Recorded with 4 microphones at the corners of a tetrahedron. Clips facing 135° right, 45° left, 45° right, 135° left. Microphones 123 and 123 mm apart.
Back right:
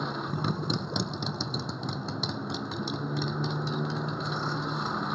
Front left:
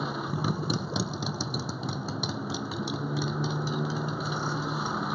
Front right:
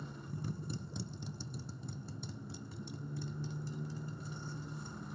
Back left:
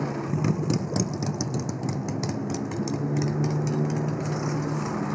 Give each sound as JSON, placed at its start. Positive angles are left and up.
{"t": 0.0, "sound": "a motorcycle", "azimuth_deg": 130}